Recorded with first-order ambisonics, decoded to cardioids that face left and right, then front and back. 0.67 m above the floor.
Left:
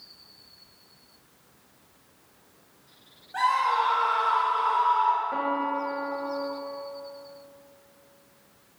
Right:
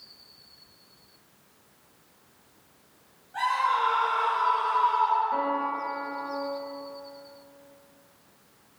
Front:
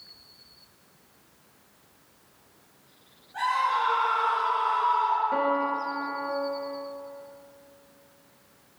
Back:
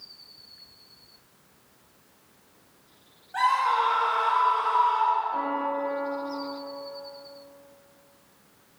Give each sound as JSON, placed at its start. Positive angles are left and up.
{"t": 3.3, "sound": "a scream", "azimuth_deg": 155, "distance_m": 1.6}
{"t": 5.3, "sound": "a piano", "azimuth_deg": 15, "distance_m": 0.8}